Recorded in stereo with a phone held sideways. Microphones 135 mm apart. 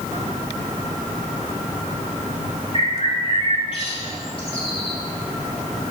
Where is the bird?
45° left (ahead or behind), 1.4 m.